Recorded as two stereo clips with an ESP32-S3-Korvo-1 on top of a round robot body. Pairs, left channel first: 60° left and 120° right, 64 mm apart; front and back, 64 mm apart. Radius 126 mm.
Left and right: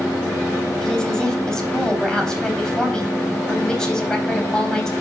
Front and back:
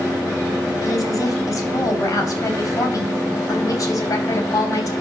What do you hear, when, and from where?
0.8 s a woman speaking: 20° right, 3 m